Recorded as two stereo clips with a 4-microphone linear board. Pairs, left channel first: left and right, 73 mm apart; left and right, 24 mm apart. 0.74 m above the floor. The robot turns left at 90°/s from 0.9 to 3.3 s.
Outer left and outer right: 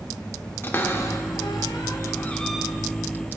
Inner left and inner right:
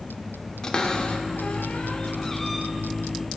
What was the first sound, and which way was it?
A cupboard door, 30° left (ahead or behind).